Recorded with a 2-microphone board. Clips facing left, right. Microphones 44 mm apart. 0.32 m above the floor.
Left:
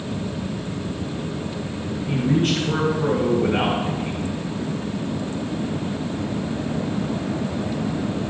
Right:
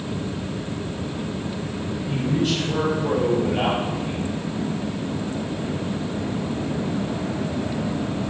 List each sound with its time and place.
2.1 s a man speaking: 55° left (ahead or behind), 3 m